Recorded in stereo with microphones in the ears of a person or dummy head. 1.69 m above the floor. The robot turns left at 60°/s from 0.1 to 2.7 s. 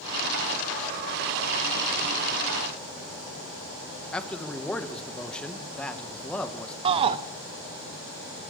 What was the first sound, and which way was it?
A man speaking, 5° left (ahead or behind).